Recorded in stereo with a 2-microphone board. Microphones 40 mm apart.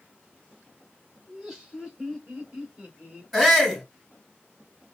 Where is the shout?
Centre (ahead or behind), 3.5 m.